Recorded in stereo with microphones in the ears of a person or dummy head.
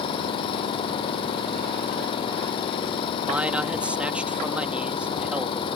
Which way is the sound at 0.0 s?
25° left (ahead or behind).